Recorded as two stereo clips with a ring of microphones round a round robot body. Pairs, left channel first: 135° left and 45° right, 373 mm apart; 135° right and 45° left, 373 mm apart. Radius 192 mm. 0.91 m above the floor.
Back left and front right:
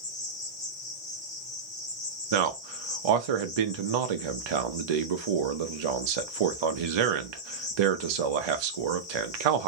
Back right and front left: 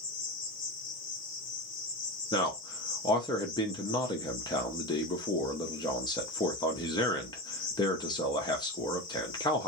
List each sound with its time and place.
0.0 s an insect: 150° right, 1.9 m
2.3 s a man speaking: 55° right, 0.7 m